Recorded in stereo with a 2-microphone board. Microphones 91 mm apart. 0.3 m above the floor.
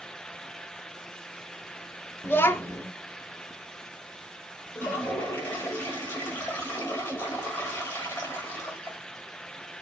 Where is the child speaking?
25° left (ahead or behind), 0.5 m.